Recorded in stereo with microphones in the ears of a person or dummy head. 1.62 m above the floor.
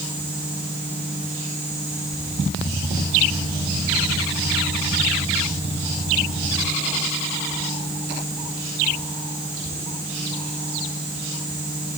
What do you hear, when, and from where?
Only background noise.